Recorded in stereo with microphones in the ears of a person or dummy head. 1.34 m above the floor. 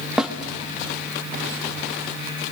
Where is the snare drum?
Centre (ahead or behind), 1.3 m.